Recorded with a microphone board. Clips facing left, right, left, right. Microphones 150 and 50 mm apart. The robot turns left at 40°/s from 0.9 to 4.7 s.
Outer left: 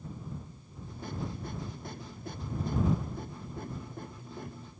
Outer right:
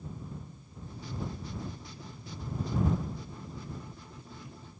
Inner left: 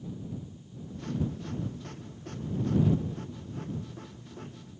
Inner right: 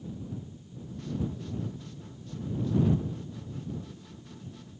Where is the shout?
No shout in this recording.